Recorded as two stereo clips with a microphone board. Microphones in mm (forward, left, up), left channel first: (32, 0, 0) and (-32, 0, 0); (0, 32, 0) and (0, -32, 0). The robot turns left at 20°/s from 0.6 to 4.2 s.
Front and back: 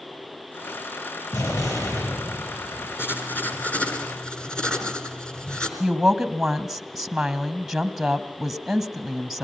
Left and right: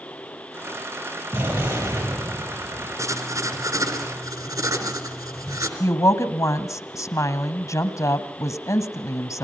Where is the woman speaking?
95° left, 1.5 m.